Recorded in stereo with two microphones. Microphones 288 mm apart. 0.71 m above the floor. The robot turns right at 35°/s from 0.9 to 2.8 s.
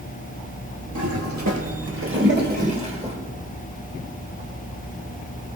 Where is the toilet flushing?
75° right (ahead or behind), 3.5 m; by 3.2 s 20° right (ahead or behind), 3.5 m.